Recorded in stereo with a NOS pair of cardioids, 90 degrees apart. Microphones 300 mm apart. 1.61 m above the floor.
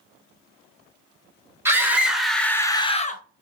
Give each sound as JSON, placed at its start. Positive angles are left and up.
{"t": 1.6, "sound": "a scream", "azimuth_deg": -10, "distance_m": 1.5}